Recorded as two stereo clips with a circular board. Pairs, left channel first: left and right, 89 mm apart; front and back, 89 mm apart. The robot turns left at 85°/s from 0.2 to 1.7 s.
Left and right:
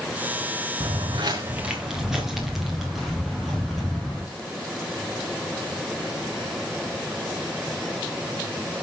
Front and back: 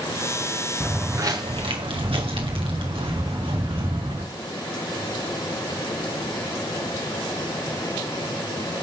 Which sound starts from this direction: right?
Footsteps, at 0.8 s.